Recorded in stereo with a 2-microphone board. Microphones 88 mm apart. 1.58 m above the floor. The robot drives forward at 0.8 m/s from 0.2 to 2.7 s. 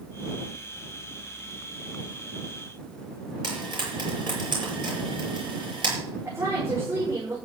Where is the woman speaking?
30° right (ahead or behind), 6.5 m.